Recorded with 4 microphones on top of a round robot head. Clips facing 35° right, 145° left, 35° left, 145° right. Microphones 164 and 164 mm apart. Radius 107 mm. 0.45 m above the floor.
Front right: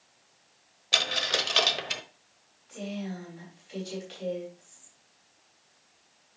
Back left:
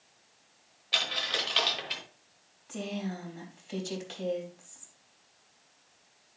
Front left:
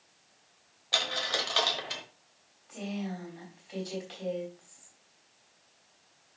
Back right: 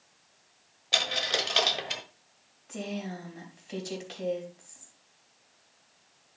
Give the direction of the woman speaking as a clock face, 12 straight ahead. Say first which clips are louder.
Even, back right 1 dB; 6 o'clock.